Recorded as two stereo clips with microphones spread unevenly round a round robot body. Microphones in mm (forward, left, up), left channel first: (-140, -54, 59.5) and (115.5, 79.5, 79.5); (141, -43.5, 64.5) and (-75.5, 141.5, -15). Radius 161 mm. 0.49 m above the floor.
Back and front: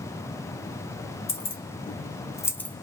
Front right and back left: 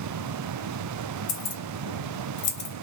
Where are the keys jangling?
90° right, 1.2 m; by 2.8 s 80° right, 0.7 m.